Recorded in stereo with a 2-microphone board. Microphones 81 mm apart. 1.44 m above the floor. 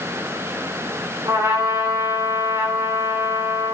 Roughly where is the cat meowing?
No cat meowing in this recording.